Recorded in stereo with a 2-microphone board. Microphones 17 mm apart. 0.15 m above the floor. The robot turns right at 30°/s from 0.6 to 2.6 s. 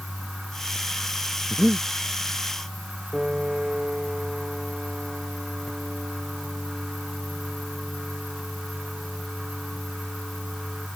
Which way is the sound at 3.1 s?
70° right (ahead or behind).